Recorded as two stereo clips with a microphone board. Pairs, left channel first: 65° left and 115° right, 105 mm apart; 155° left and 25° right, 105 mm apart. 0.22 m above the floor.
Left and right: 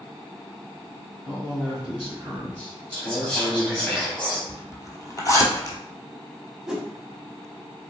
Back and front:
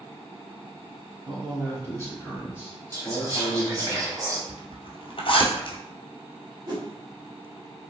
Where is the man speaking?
5° right, 1.9 m; by 3.9 s 80° left, 1.5 m.